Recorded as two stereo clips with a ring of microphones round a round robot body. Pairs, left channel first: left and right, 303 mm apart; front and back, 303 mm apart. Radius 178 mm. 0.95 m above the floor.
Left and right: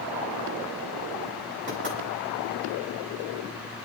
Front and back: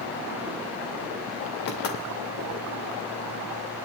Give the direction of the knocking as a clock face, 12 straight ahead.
1 o'clock.